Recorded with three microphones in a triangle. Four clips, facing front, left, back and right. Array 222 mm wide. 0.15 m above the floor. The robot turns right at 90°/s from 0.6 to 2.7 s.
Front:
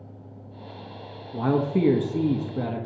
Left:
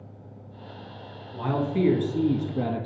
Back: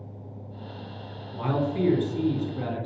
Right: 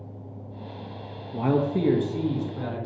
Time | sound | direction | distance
1.3 | a man speaking | 60° right | 1.8 m